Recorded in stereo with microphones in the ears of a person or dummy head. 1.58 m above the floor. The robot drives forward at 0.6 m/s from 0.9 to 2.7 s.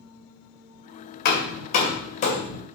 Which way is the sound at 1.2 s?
50° left (ahead or behind).